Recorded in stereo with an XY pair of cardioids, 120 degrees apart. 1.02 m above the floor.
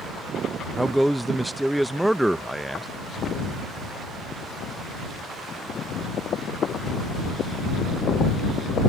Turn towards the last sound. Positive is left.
turn(degrees=-5)